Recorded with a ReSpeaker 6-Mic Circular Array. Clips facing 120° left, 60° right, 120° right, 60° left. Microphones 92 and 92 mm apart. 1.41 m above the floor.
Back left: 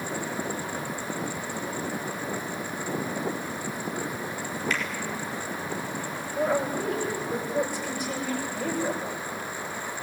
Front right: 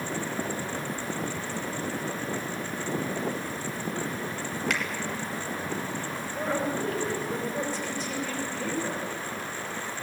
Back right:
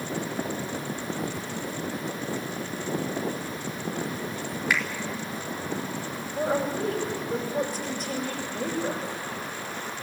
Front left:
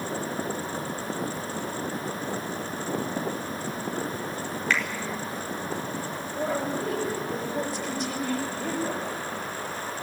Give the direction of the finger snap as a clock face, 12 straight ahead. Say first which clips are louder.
Even, even; 1 o'clock.